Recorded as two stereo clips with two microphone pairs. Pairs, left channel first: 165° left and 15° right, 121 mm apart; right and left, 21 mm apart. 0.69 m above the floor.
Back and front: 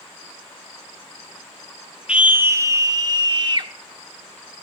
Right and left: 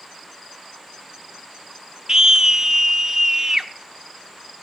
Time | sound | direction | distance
2.1 | a scream | 60° left | 0.6 m